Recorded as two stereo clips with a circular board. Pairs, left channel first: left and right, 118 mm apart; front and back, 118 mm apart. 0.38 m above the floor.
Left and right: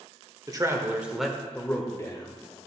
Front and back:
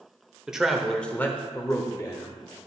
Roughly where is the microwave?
No microwave in this recording.